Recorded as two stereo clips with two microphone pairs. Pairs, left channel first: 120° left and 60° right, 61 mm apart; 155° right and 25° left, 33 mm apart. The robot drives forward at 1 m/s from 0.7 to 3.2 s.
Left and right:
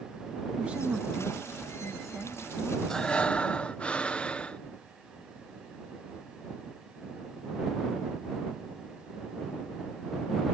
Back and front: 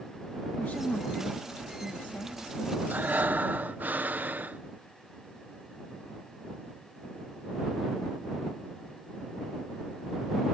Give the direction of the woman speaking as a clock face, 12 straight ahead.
4 o'clock.